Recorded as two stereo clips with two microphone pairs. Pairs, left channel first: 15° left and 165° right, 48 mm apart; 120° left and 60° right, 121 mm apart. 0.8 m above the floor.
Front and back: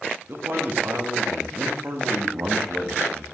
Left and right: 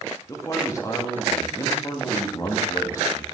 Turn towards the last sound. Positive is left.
turn(degrees=175)